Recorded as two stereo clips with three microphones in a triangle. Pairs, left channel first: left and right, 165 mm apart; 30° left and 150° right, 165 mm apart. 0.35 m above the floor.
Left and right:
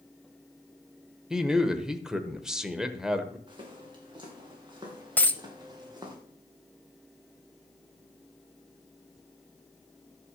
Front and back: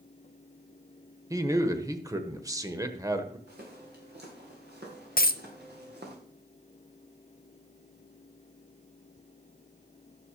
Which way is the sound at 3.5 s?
150° right.